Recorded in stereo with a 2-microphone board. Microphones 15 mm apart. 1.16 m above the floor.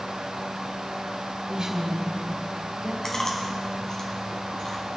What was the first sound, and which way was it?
A woman speaking, 45° right (ahead or behind).